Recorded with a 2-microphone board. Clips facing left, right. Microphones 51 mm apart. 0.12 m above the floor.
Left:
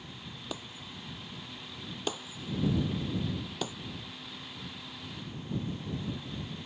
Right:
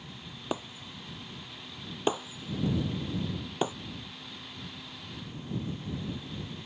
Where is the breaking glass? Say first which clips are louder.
Right 8 dB; 30° right (ahead or behind).